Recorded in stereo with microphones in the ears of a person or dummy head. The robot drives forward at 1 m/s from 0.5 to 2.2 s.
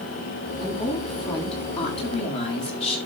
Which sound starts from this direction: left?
A woman speaking, at 0.6 s.